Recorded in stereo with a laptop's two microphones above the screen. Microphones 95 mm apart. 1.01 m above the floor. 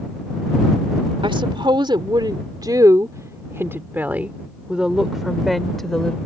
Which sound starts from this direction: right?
A woman speaking, at 1.2 s.